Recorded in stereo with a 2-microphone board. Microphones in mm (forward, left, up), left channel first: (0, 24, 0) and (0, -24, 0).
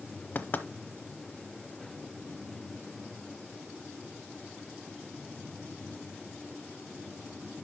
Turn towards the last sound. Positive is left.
turn(degrees=40)  # may be behind; listen again after turning